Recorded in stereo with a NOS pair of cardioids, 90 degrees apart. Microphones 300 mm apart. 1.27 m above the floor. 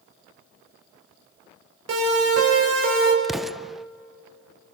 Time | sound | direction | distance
1.9 | a siren | 55° right | 7 m
3.2 | an explosion | straight ahead | 0.5 m